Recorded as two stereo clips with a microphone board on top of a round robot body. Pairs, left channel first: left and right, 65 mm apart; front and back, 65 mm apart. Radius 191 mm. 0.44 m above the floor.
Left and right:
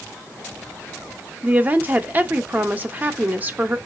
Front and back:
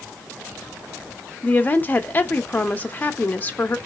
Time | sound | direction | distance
1.4 | a woman speaking | 45° right | 0.8 m